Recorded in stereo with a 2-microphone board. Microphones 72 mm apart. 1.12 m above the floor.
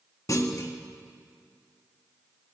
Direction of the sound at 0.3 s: 50° left (ahead or behind).